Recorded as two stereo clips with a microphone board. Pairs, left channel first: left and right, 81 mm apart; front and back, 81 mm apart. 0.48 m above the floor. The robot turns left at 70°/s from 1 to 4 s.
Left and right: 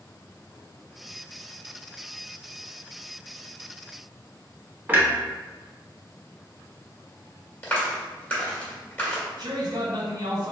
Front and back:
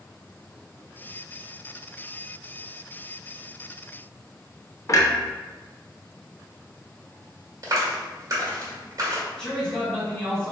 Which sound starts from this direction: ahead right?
A clunk, at 4.9 s.